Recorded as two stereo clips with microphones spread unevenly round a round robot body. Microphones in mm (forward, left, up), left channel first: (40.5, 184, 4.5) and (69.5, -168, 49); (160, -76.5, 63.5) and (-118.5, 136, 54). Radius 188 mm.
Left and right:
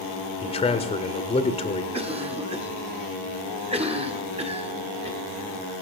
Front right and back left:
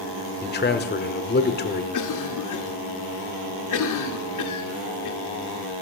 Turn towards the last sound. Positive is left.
turn(degrees=-10)